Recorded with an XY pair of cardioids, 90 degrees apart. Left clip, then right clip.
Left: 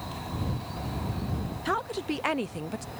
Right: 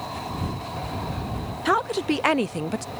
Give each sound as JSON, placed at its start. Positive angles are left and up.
{"t": 1.6, "sound": "a woman speaking", "azimuth_deg": -50}